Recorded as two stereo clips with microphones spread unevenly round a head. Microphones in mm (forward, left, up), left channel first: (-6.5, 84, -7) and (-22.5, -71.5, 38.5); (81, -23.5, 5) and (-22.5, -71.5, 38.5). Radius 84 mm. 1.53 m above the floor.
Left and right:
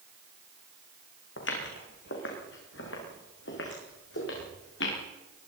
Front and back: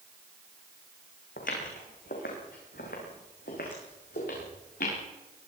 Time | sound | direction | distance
1.4 | footsteps | 60° left | 6 m